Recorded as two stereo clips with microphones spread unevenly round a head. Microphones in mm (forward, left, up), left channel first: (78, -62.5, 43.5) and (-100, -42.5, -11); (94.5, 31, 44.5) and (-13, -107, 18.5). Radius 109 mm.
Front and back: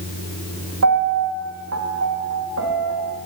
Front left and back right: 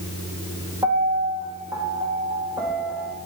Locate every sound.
0.8 s a piano: 150° left, 0.8 m